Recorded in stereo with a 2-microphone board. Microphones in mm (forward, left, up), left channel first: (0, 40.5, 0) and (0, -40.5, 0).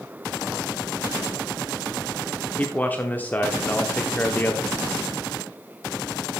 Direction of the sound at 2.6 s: 20° left (ahead or behind).